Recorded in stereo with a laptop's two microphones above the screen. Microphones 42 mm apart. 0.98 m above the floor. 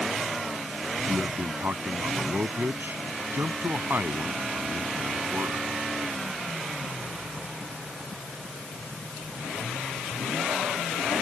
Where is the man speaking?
55° right (ahead or behind).